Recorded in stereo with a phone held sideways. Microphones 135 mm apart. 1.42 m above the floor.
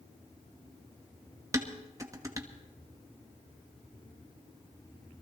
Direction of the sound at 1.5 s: 25° right (ahead or behind).